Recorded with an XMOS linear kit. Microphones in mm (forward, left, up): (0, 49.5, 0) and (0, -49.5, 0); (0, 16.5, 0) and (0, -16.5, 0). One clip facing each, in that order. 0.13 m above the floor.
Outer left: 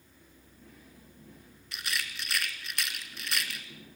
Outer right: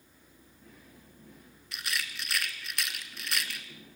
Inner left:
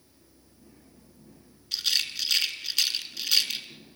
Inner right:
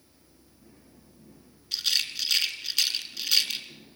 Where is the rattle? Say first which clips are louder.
Even, even; centre (ahead or behind), 1.8 m.